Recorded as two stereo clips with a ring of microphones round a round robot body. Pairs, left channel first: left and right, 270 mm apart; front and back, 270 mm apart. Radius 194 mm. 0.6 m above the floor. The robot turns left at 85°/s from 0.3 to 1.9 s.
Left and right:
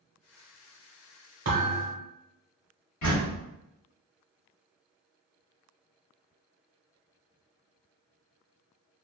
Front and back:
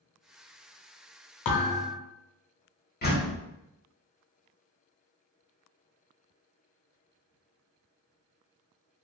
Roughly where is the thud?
Ahead right.